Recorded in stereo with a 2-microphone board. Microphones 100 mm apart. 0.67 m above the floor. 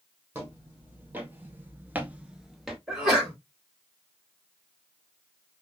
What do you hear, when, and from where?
0.3 s footsteps: 15° right (ahead or behind), 1.7 m; by 2.8 s centre (ahead or behind), 0.9 m
2.9 s a sneeze: 5° right (ahead or behind), 2.5 m